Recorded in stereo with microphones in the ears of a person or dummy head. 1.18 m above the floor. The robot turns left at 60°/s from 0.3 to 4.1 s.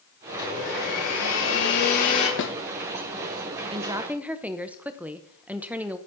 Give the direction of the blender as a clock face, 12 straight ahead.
7 o'clock.